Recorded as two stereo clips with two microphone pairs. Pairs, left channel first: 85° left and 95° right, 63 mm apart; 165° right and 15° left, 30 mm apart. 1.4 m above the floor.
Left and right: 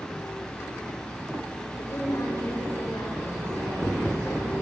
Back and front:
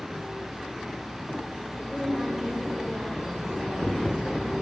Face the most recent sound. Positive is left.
turn(degrees=75)